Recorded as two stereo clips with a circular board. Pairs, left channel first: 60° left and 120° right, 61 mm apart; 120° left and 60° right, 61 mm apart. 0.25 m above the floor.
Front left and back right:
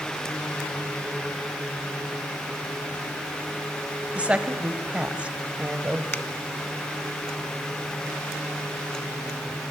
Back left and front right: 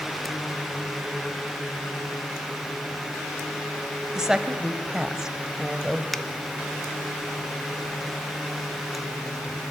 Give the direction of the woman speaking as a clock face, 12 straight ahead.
4 o'clock.